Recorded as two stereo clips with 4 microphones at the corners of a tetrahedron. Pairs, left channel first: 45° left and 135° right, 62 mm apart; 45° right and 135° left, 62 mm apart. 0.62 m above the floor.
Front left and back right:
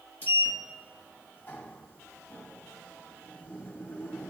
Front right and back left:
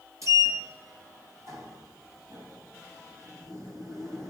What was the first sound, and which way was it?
A sliding door, 105° left.